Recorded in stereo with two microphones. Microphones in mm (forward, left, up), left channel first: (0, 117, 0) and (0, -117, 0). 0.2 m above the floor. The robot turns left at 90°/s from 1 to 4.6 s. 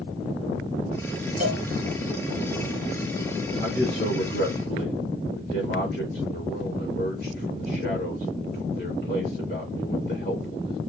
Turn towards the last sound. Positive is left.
turn(degrees=60)